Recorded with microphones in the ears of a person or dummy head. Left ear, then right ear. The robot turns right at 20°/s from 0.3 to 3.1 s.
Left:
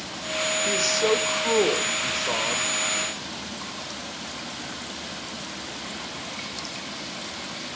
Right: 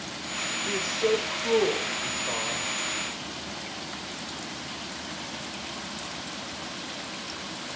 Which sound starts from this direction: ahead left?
A man speaking, at 0.7 s.